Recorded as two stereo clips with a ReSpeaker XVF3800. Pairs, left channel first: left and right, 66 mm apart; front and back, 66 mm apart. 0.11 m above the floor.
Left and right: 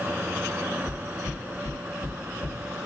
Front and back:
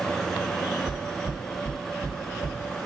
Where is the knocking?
110° left, 4 m.